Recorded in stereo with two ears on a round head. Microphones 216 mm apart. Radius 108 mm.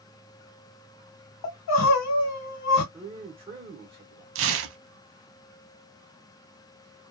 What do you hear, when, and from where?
1.4 s crying: 85° left, 1.2 m
2.9 s a man speaking: 25° right (ahead or behind), 0.8 m
4.3 s tearing paper: 65° right (ahead or behind), 0.5 m